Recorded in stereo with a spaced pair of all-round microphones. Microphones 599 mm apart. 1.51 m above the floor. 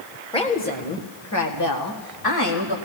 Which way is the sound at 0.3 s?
10° left (ahead or behind).